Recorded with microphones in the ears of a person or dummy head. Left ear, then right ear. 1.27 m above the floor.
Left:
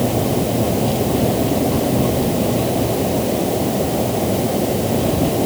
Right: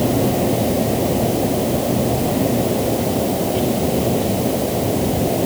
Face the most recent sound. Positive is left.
No sound to turn to.